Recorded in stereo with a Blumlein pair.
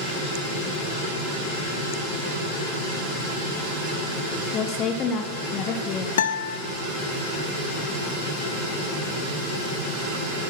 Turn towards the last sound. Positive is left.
turn(degrees=60)